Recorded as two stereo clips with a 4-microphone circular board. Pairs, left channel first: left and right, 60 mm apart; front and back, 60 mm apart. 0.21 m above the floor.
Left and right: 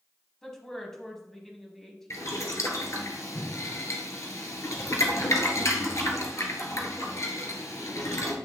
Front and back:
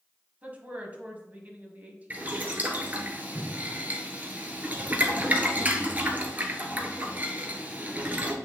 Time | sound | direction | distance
0.4 | a woman speaking | 165° left | 1.4 m
2.1 | boiling | 120° left | 1.3 m